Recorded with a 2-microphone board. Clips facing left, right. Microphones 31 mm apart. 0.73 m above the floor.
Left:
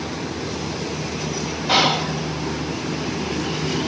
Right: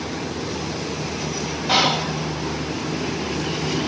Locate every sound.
1.7 s whispering: 5° left (ahead or behind), 0.8 m